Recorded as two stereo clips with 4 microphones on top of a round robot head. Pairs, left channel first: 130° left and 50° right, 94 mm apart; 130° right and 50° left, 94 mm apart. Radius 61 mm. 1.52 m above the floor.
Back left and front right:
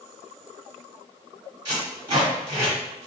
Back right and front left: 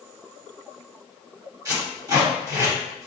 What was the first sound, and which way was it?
Tape being pulled, 5° right.